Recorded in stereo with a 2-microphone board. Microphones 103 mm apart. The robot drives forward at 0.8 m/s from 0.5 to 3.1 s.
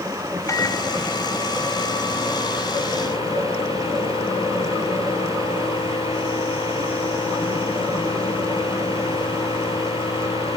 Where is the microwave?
30° left (ahead or behind); by 10.6 s 65° left (ahead or behind).